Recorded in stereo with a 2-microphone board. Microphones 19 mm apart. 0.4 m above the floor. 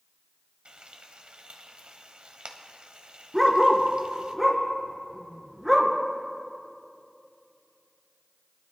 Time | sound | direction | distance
0.7 | frying | 65° right (ahead or behind) | 0.9 m
3.3 | a dog barking | 5° left (ahead or behind) | 1.7 m